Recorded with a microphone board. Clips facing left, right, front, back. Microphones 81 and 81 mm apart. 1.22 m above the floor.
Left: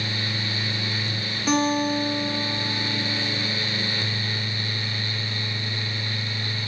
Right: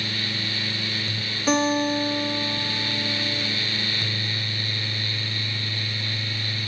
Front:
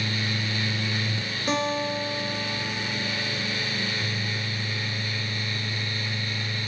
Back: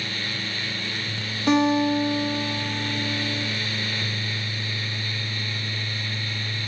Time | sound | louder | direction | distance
1.5 | a guitar | right 1 dB, back 7 dB | straight behind | 2.5 m